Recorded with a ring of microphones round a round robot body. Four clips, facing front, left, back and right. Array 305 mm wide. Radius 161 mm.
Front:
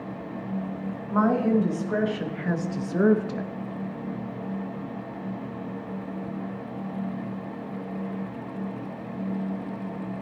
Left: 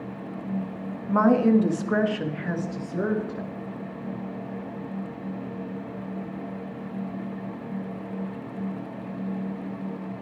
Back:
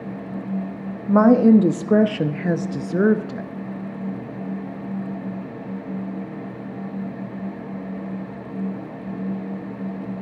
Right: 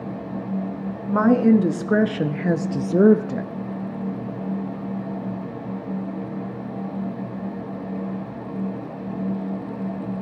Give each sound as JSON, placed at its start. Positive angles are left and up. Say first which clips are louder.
{"t": 1.1, "sound": "a woman speaking", "louder": "right 3 dB, back 9 dB", "azimuth_deg": -165, "distance_m": 1.5}